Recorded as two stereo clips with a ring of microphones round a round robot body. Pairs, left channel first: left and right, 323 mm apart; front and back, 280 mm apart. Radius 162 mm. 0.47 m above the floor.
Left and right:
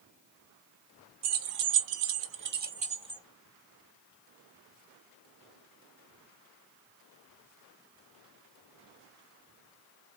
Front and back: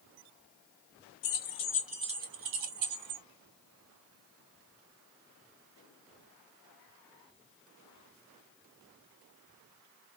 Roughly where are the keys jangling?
Ahead right.